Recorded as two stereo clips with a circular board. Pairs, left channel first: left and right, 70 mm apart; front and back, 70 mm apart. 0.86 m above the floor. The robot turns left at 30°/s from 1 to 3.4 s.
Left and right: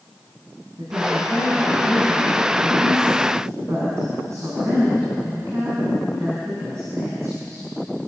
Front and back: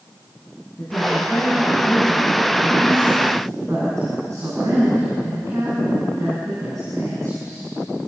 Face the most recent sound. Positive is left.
turn(degrees=-135)